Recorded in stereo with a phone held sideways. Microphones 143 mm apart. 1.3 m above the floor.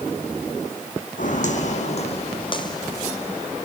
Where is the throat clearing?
I don't hear throat clearing.